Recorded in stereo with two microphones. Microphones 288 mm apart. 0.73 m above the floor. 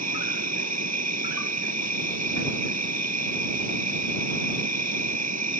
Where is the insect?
65° right (ahead or behind).